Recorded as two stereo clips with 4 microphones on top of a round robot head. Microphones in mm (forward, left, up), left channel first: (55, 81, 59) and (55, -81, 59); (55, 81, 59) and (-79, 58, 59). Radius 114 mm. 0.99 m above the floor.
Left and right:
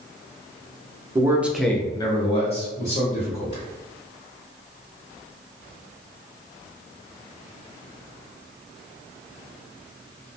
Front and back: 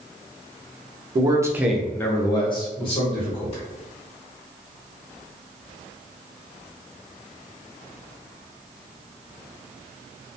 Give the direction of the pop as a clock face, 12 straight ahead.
No pop in this recording.